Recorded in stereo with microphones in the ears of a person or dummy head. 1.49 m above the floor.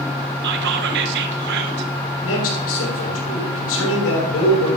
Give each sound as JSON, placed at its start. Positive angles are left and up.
{"t": 0.4, "sound": "whispering", "side_deg": -55, "distance_m": 0.8}
{"t": 2.2, "sound": "a man speaking", "side_deg": 80, "distance_m": 6.0}